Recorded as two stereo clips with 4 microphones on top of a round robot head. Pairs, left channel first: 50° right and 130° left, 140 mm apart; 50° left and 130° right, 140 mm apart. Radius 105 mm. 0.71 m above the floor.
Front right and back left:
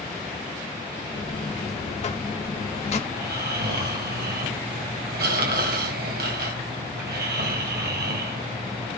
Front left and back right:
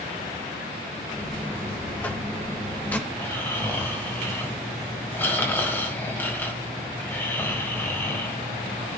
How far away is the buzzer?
About 1.5 m.